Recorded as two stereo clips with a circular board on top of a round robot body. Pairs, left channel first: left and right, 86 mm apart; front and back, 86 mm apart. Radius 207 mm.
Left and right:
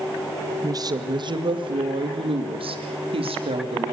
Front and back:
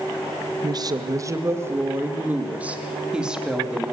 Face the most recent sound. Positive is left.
turn(degrees=-95)